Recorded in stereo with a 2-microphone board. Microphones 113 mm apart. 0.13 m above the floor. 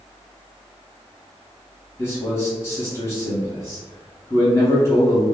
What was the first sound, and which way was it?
A man speaking, 25° left (ahead or behind).